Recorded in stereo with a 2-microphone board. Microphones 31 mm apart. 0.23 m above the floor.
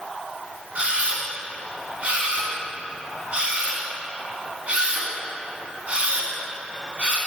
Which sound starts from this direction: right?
A camera shutter, at 0.8 s.